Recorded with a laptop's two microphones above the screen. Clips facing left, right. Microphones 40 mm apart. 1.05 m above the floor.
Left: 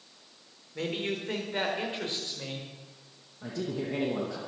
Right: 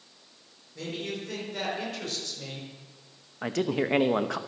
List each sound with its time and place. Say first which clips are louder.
0.8 s a man speaking: left 3 dB; 40° left (ahead or behind), 4 m; by 2.7 s 25° left (ahead or behind), 5.5 m
3.4 s a man speaking: right 6 dB; 75° right (ahead or behind), 0.9 m